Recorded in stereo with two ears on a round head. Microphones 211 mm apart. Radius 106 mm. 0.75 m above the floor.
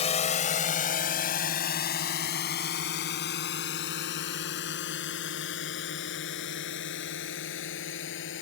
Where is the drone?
30° left (ahead or behind); by 8.4 s 55° left (ahead or behind).